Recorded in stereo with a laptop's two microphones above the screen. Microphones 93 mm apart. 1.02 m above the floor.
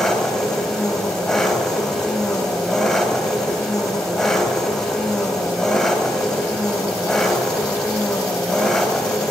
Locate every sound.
0.0 s an engine running: 5° left (ahead or behind), 3.5 m